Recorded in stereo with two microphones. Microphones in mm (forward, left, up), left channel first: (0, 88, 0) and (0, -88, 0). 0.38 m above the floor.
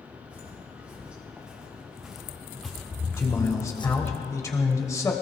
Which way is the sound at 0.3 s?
10° right (ahead or behind).